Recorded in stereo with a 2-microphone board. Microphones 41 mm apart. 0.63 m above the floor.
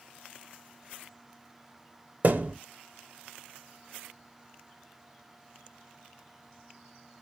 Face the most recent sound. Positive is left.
turn(degrees=-40)  # may be behind; listen again after turning